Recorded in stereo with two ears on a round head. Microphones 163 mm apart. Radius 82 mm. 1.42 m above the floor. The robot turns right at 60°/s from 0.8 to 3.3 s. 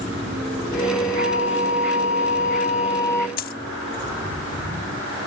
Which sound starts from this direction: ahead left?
A flute, at 1.1 s.